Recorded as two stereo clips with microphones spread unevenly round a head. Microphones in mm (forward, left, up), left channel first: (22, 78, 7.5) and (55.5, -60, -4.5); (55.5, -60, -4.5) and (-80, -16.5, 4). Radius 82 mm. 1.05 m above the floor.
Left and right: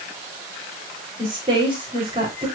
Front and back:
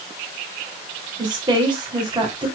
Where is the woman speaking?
140° right, 3 m.